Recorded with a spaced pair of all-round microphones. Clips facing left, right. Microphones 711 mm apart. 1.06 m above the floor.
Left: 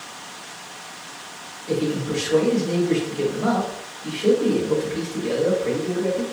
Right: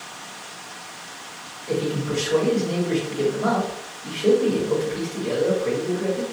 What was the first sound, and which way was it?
A man speaking, 40° left (ahead or behind).